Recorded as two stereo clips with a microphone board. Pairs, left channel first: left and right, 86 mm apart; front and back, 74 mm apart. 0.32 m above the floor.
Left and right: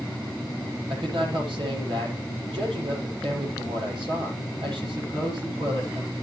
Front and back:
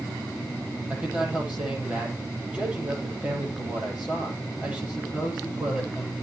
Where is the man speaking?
105° right, 9.5 m.